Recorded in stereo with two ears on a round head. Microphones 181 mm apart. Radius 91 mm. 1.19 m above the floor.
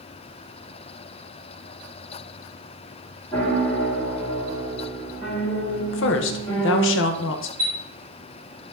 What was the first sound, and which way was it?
A piano, 5° left (ahead or behind).